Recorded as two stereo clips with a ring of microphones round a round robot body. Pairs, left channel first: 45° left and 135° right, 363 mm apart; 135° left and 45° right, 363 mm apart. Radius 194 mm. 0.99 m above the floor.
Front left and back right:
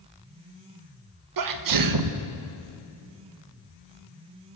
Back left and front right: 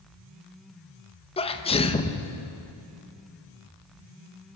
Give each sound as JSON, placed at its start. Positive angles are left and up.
{"t": 1.4, "sound": "a sneeze", "azimuth_deg": -150, "distance_m": 1.5}